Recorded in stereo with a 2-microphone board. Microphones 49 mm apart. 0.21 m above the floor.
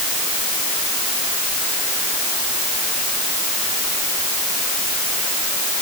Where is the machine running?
No machine running in this recording.